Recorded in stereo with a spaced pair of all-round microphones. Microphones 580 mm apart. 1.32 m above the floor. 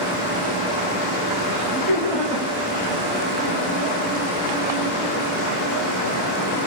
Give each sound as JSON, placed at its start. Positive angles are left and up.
{"t": 1.5, "sound": "laughter", "side_deg": -80, "distance_m": 4.0}